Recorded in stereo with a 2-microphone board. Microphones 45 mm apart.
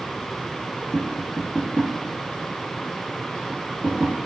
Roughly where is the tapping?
Centre.